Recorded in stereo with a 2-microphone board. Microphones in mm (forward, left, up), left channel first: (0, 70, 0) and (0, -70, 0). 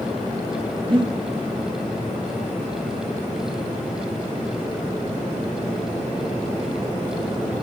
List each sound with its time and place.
0.9 s breathing: 40° right (ahead or behind), 1.5 m